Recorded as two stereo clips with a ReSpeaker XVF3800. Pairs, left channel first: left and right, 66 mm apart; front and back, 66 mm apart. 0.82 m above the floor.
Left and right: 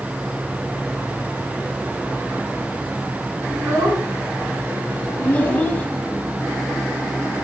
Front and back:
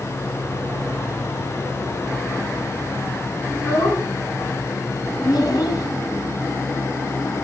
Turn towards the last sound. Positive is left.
turn(degrees=20)